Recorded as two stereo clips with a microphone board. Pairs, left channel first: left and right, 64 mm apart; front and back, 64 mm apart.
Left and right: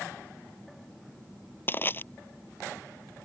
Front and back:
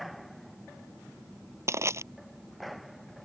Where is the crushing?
145° left.